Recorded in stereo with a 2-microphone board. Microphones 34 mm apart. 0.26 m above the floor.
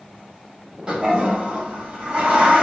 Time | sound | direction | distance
0.9 | a toilet flushing | 30° right (ahead or behind) | 1.2 m